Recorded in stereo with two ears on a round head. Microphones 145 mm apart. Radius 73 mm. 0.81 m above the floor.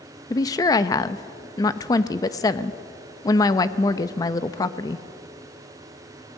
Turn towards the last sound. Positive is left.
turn(degrees=20)  # may be behind; listen again after turning